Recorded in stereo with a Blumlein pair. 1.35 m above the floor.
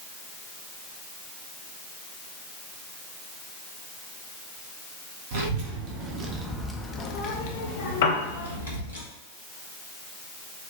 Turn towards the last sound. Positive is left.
turn(degrees=55)